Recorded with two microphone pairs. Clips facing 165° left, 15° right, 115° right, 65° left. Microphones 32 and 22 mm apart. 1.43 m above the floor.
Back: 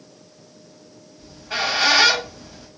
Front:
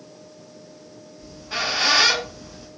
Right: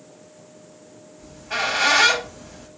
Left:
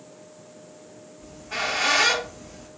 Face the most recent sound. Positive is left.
turn(degrees=-155)